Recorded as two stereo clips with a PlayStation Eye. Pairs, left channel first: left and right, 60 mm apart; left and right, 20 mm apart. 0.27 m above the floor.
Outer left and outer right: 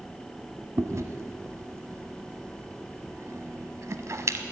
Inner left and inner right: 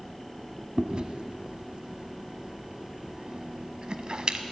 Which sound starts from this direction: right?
Chewing, at 0.8 s.